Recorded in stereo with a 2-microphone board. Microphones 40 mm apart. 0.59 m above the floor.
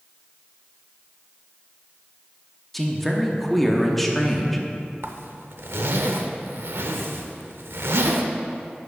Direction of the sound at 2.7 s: 5° left (ahead or behind).